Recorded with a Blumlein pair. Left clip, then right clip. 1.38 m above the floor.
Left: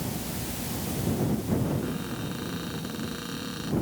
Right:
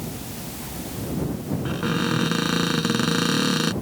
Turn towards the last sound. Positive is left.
turn(degrees=-55)